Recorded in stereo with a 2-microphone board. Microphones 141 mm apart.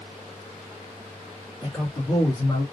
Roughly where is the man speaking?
Centre.